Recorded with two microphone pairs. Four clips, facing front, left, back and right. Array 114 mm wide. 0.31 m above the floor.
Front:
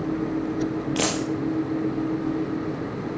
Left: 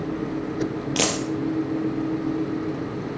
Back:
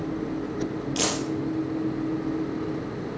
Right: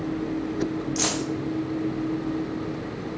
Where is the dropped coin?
60° left, 3.5 m.